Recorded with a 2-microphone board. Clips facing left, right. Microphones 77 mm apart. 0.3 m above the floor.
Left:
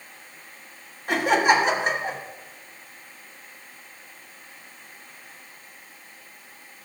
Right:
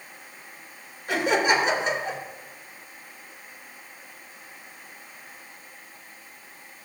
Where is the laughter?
55° left (ahead or behind), 1.6 m.